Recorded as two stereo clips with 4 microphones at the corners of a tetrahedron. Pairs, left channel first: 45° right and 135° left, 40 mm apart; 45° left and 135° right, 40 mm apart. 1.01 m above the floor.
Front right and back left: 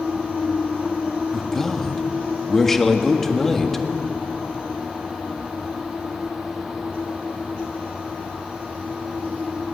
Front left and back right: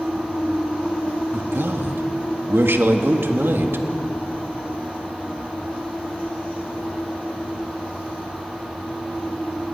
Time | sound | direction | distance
1.3 | a man speaking | 130° right | 1.7 m